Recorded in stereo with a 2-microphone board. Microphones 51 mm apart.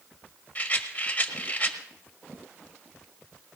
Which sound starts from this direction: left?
A rattle, at 0.6 s.